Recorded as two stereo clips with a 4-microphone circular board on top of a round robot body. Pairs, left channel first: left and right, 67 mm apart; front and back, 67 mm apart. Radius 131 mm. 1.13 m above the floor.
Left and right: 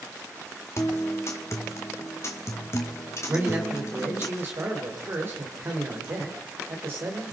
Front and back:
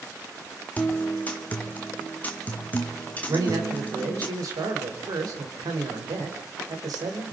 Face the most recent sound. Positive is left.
turn(degrees=-150)